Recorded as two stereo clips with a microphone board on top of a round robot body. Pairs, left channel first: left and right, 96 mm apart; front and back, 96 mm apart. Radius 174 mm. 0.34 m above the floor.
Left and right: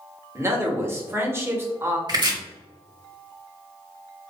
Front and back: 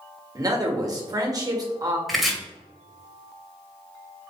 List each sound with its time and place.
0.3 s a man speaking: 145° right, 1.6 m
2.1 s chopping: 90° right, 1.6 m